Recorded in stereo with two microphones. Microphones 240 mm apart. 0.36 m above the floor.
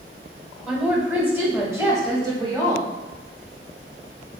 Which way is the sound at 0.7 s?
5° right (ahead or behind).